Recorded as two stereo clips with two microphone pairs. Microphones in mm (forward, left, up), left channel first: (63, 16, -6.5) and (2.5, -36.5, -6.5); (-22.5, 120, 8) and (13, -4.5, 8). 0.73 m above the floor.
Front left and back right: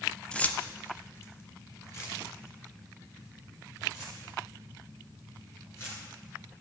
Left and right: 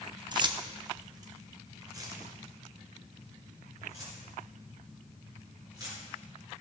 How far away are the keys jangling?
About 0.6 m.